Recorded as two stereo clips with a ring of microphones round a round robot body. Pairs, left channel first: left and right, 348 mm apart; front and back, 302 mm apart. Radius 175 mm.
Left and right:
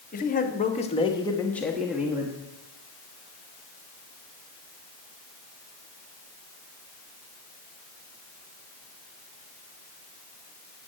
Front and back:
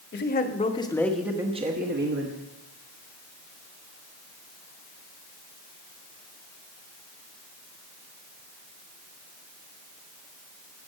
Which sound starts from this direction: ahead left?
A man speaking, at 0.1 s.